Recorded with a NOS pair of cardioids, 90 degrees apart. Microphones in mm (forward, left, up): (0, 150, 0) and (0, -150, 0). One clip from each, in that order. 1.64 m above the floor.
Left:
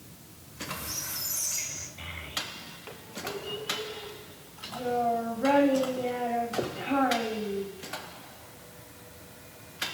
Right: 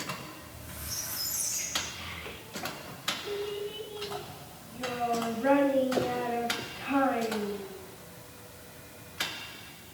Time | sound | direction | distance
0.4 | a squeak | 65° left | 3.5 m
2.0 | a child speaking | 30° left | 3 m